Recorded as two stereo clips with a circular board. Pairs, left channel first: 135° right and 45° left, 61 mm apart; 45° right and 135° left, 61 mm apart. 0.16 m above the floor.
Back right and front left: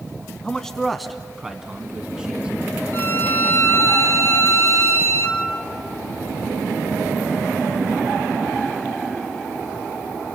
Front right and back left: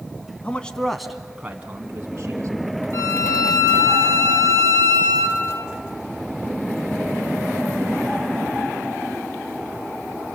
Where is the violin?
85° right, 4 m.